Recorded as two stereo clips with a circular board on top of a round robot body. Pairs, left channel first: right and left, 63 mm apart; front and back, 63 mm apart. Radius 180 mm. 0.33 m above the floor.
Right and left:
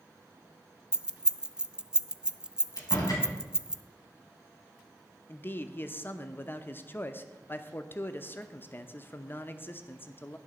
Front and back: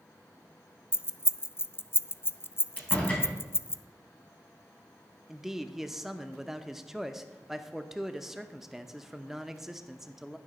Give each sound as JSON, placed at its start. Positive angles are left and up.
{"t": 0.9, "sound": "keys jangling", "azimuth_deg": 20, "distance_m": 0.6}
{"t": 2.8, "sound": "a door slam", "azimuth_deg": -70, "distance_m": 3.5}
{"t": 5.3, "sound": "a man speaking", "azimuth_deg": -100, "distance_m": 0.9}